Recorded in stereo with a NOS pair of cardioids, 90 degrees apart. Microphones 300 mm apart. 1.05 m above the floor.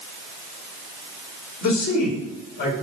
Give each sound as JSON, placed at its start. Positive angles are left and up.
{"t": 1.6, "sound": "a man speaking", "azimuth_deg": 65, "distance_m": 4.5}